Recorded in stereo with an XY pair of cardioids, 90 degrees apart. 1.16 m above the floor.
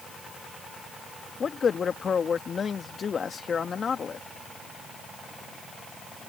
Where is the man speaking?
50° left.